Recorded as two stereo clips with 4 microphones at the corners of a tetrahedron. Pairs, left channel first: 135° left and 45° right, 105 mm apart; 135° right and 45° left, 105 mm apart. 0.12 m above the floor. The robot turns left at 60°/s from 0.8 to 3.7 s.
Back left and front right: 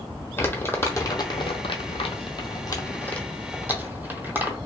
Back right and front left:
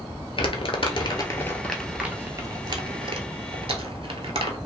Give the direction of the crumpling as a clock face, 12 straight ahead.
5 o'clock.